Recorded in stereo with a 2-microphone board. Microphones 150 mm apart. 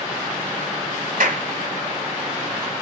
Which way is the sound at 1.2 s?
70° right (ahead or behind).